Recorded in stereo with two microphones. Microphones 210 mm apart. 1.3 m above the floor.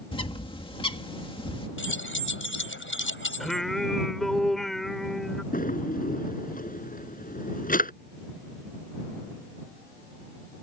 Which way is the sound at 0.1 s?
25° left (ahead or behind).